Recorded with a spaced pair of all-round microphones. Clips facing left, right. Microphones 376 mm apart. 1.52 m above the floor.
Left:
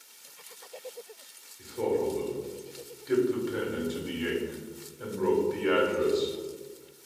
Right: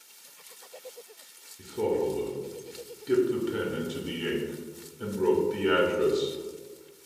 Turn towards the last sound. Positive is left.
turn(degrees=-45)  # may be behind; listen again after turning